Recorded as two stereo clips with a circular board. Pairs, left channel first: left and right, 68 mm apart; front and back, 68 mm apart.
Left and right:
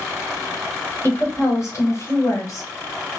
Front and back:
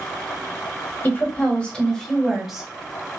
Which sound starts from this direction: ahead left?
A woman speaking, at 1.0 s.